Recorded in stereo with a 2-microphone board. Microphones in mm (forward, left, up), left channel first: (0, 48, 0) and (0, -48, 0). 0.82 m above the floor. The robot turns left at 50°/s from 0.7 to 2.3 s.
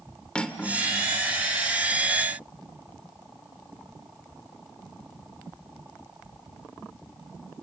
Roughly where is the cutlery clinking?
Centre.